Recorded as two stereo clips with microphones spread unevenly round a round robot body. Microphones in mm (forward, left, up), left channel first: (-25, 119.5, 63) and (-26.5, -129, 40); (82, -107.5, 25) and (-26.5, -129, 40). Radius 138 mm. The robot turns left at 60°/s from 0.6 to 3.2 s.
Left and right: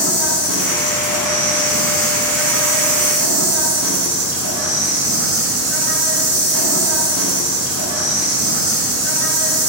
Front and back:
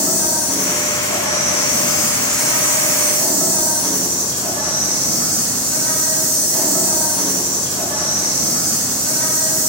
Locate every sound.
0.0 s an insect: 25° left, 0.8 m; by 9.7 s 130° right, 0.8 m